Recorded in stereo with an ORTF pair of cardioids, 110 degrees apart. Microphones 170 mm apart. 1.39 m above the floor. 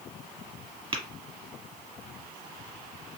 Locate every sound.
0.9 s tapping: 35° right, 1.6 m